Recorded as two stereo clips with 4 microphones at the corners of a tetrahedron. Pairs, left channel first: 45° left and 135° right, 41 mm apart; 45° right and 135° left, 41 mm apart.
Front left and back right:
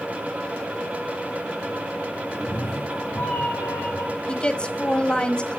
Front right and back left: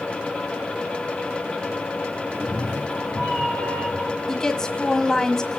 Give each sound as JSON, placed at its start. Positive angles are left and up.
{"t": 2.3, "sound": "a cat meowing", "azimuth_deg": 65, "distance_m": 3.0}
{"t": 4.3, "sound": "a woman speaking", "azimuth_deg": 10, "distance_m": 1.4}